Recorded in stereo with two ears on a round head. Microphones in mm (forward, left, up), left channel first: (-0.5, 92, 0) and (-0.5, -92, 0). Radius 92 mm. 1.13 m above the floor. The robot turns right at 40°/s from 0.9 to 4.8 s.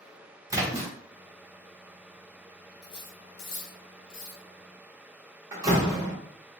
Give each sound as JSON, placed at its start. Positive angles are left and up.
{"t": 0.5, "sound": "a splash", "side_deg": -15, "distance_m": 0.9}
{"t": 2.8, "sound": "cutlery clinking", "side_deg": 20, "distance_m": 1.4}
{"t": 5.5, "sound": "a door slam", "side_deg": -20, "distance_m": 1.1}